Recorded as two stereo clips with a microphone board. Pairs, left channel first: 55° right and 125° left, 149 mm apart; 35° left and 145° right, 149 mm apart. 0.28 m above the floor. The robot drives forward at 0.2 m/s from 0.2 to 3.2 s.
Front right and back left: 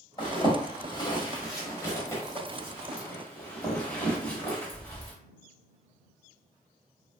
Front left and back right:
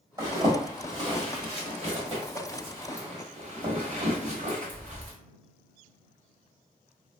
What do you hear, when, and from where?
0.2 s a zipper: 90° right, 1.1 m; by 5.1 s 130° right, 1.3 m